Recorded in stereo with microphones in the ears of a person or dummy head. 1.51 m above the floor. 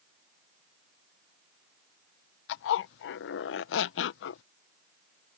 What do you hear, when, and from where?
2.5 s a zipper: 65° left (ahead or behind)